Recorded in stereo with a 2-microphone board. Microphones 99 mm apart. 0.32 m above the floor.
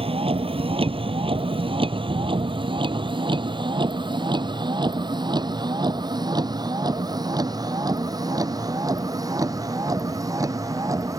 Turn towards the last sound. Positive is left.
turn(degrees=-35)  # may be behind; listen again after turning